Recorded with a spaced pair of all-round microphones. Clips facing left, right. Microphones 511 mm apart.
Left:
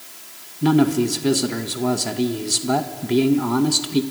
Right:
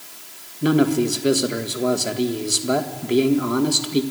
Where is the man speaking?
15° left (ahead or behind), 1.6 m.